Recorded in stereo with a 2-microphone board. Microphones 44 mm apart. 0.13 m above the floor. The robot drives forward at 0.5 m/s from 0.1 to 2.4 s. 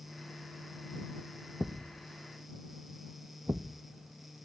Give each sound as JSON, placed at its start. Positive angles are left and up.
{"t": 1.6, "sound": "a thud", "side_deg": -55, "distance_m": 0.7}